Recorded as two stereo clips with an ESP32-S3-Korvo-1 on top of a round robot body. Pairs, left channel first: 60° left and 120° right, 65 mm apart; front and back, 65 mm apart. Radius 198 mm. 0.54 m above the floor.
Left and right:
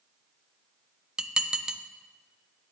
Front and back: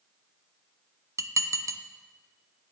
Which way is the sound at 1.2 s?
165° left.